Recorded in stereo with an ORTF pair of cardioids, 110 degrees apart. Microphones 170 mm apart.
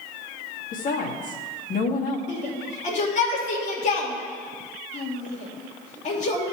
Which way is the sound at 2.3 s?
45° left.